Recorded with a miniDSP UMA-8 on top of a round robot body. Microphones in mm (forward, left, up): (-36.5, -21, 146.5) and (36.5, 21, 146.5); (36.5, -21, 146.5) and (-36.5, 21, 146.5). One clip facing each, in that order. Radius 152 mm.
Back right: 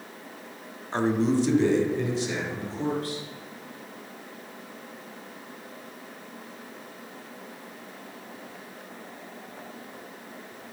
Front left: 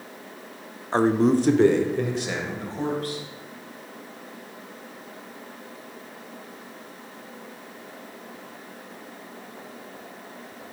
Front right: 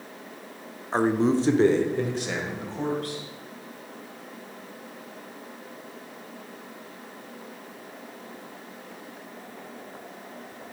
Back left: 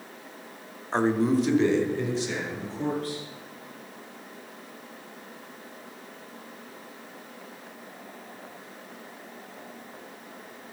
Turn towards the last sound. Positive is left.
turn(degrees=-5)